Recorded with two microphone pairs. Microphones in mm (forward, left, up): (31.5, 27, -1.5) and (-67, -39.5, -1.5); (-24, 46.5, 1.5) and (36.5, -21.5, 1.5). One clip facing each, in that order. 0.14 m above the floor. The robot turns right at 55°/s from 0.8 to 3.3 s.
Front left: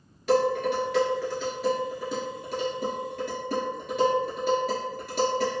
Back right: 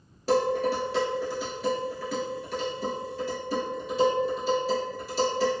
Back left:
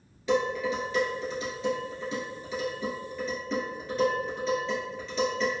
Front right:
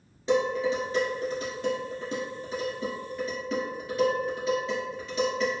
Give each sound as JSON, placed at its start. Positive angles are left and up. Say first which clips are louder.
{"t": 0.3, "sound": "dishes clattering", "louder": "front left 1 dB, front right 2 dB", "azimuth_deg": -100, "distance_m": 1.3}